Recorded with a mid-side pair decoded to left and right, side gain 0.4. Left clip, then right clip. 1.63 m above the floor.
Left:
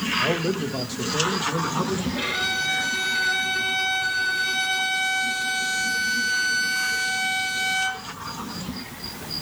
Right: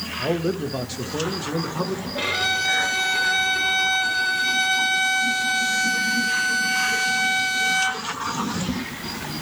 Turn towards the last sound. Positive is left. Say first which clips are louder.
# right 4 dB
turn(degrees=-15)